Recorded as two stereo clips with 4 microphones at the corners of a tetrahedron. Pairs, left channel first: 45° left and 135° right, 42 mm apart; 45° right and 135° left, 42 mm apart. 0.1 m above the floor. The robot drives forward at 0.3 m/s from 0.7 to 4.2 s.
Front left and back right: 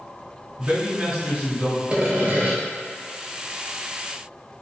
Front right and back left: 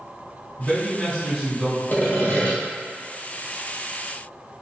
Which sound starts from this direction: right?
Sawing, at 1.9 s.